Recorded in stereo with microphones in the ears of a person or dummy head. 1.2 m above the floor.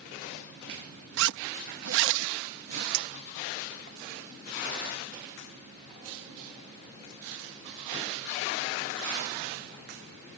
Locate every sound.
1.2 s a zipper: 70° right (ahead or behind)
2.9 s a clink: 55° right (ahead or behind)